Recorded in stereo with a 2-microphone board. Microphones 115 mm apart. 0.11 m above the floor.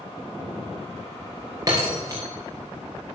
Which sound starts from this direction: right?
Breaking glass, at 1.7 s.